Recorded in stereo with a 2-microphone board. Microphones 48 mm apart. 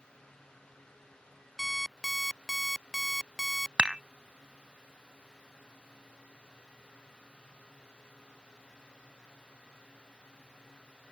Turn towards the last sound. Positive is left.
turn(degrees=-20)  # may be behind; listen again after turning